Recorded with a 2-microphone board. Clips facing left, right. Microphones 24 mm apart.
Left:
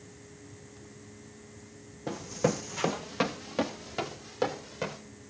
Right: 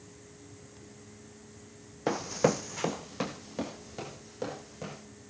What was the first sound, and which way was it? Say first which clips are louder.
Running footsteps: right 3 dB; 60° right (ahead or behind).